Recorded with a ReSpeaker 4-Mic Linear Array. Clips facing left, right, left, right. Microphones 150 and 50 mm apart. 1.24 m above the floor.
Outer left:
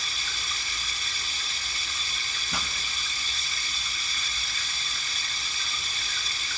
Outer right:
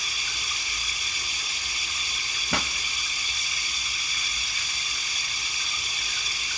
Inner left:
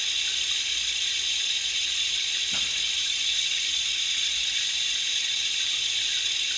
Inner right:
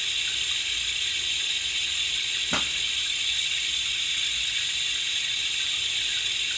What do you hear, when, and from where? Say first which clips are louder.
0.0 s running water: even, inner right 1 dB; 15° right (ahead or behind), 1.8 m
2.5 s a pop: outer right 7 dB, inner right 7 dB; 65° right (ahead or behind), 1.2 m